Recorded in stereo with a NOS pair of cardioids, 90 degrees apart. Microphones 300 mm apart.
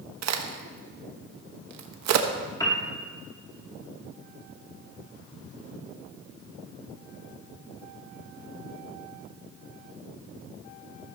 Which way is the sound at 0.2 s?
65° right.